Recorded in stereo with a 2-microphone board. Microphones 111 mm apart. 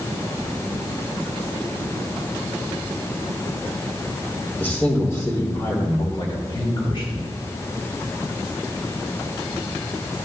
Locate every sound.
4.6 s a man speaking: 15° left (ahead or behind), 1.5 m; by 7.2 s 55° left (ahead or behind), 2 m